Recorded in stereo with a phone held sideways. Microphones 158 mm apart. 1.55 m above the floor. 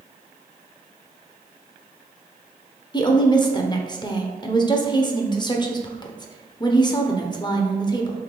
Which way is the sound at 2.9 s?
30° left (ahead or behind).